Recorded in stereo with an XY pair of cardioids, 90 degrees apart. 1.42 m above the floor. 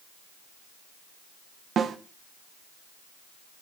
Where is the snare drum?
60° right, 1.5 m.